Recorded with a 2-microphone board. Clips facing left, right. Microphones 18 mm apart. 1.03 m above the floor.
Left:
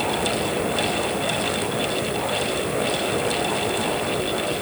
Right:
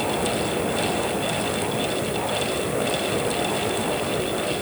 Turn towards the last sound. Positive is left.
No sound to turn to.